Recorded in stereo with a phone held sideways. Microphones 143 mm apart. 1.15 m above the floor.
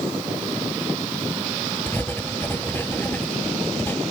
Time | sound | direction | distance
1.9 | writing | 15° left (ahead or behind) | ?